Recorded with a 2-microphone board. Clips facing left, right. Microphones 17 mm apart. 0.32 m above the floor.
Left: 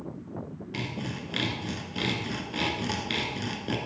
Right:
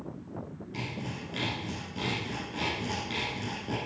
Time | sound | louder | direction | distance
0.7 | sawing | left 3 dB | 45° left (ahead or behind) | 1.4 m